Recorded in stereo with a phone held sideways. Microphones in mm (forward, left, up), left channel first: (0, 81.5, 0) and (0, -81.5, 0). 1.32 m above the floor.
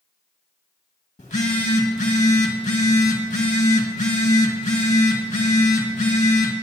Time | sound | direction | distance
1.2 | a phone buzzing | 45° left (ahead or behind) | 1.9 m